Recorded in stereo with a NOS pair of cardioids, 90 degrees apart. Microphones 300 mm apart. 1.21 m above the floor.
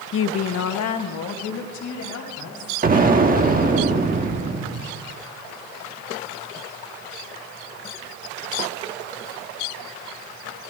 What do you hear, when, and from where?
0.1 s a woman speaking: 45° left, 0.5 m; by 2.8 s 70° left, 3.5 m
2.8 s an explosion: 30° right, 1.4 m